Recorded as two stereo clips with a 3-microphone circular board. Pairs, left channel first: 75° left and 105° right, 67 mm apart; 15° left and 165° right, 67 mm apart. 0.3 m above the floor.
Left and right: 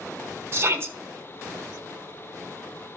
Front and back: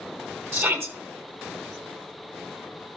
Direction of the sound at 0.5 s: 140° right.